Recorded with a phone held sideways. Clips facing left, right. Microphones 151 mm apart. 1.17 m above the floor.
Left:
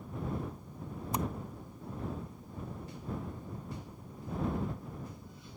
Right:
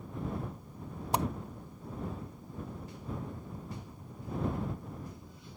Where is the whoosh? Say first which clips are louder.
Right 4 dB; 75° right (ahead or behind).